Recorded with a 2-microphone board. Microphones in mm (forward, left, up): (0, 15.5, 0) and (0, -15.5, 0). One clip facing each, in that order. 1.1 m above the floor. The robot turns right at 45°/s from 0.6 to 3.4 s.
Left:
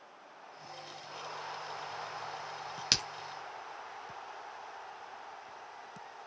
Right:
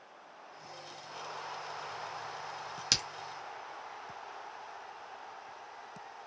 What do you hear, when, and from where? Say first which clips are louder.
2.9 s a crack: left 1 dB; 20° left (ahead or behind), 1.0 m